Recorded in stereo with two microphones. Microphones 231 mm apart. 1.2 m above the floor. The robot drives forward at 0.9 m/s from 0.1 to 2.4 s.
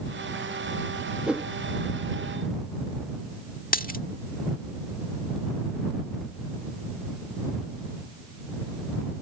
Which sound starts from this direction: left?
A dropped coin, at 3.7 s.